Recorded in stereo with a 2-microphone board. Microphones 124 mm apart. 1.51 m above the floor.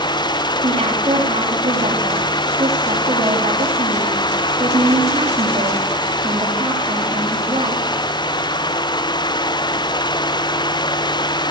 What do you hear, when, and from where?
0.6 s a woman speaking: 55° right (ahead or behind), 3 m